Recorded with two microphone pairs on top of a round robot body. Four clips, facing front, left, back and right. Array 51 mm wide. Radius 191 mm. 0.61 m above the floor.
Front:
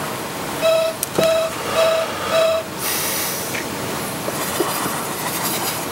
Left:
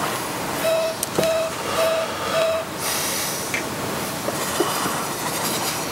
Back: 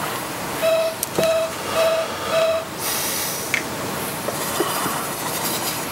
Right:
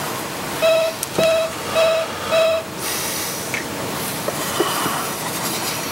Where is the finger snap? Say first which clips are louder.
Even, back 5 dB; 175° right, 2 m.